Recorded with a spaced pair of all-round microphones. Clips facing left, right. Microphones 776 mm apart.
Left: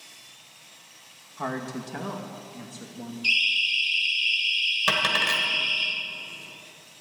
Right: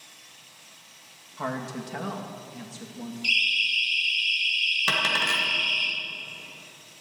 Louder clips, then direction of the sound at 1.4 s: Left 1 dB; 5° right (ahead or behind).